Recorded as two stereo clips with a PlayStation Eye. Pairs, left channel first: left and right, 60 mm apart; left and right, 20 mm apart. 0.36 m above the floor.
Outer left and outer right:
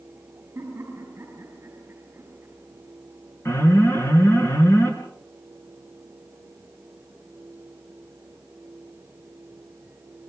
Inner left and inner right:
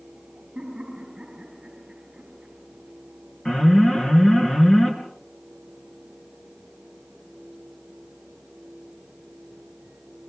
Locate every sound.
0.6 s laughter: 35° right (ahead or behind), 5 m
3.5 s an alarm: 40° left (ahead or behind), 5.5 m